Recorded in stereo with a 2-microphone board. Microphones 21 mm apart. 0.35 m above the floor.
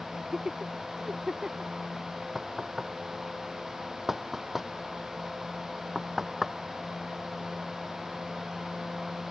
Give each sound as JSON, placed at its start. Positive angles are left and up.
{"t": 0.1, "sound": "laughter", "side_deg": -35}
{"t": 2.4, "sound": "knocking", "side_deg": -10}